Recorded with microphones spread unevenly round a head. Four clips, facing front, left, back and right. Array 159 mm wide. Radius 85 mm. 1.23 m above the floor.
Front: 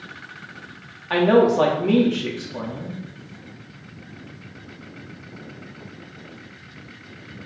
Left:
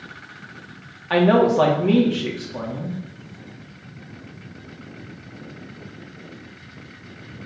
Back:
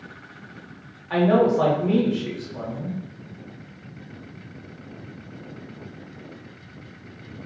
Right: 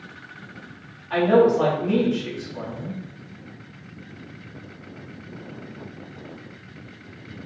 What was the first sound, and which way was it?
A man speaking, 45° left.